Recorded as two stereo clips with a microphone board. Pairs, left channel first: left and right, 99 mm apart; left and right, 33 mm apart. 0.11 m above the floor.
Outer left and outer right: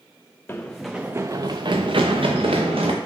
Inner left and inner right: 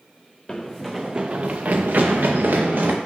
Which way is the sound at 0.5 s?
20° left (ahead or behind).